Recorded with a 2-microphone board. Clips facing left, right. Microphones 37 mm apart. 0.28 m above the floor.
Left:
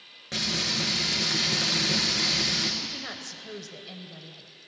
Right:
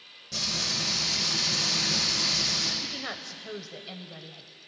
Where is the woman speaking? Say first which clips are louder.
Right 1 dB; 20° right (ahead or behind), 0.9 m.